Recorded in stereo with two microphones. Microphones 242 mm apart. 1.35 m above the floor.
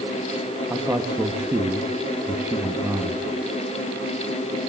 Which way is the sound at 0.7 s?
10° right (ahead or behind).